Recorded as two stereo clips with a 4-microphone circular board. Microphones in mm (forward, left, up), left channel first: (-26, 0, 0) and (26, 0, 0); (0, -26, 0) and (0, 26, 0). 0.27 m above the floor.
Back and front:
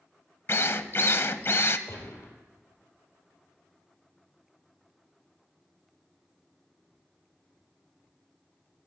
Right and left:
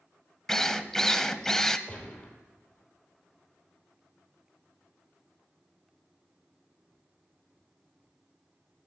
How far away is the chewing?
No chewing in this recording.